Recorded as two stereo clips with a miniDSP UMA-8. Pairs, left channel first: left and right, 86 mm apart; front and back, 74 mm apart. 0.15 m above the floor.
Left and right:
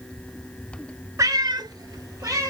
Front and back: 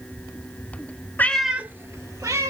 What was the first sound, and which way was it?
A cat meowing, 55° right.